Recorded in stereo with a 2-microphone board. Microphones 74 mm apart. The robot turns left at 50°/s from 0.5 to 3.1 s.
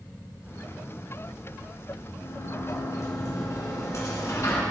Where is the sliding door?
95° left, 1.9 m; by 4.6 s 50° left, 1.9 m.